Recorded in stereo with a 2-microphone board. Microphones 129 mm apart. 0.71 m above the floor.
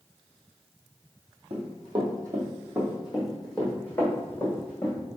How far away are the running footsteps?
About 1.5 m.